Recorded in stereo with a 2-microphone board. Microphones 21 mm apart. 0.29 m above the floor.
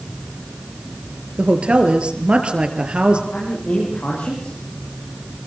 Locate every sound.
1.4 s a woman speaking: 55° right (ahead or behind), 4.5 m; by 3.2 s 50° right (ahead or behind), 5 m
3.3 s a man speaking: 80° left, 8.5 m